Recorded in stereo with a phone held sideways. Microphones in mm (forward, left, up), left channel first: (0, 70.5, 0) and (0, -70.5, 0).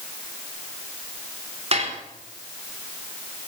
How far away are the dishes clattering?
About 2.5 m.